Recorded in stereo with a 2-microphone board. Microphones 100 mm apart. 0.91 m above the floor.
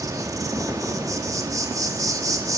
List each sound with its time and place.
0.0 s an insect: 35° right (ahead or behind), 1.6 m